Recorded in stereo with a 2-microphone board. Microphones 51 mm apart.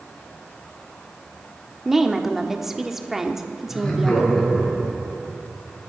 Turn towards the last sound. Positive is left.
turn(degrees=10)  # may be behind; listen again after turning